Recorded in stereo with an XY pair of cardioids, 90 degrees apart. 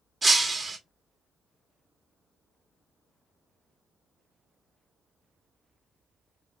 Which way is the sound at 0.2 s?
35° right.